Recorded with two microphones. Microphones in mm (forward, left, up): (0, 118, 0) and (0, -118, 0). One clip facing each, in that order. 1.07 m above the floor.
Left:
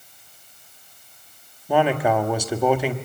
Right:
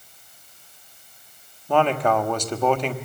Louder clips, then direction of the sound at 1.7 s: Left 1 dB; 10° left (ahead or behind).